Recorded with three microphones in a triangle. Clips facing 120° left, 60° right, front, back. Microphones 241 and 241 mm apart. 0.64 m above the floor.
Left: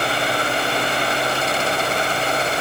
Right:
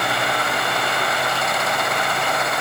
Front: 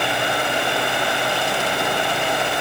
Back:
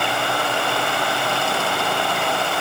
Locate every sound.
Only background noise.